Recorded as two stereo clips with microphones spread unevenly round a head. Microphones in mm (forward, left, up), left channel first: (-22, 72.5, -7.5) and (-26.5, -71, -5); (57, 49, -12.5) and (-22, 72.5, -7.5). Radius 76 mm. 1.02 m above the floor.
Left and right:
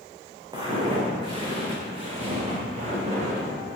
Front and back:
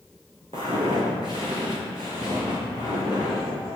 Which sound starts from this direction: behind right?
Footsteps, at 0.5 s.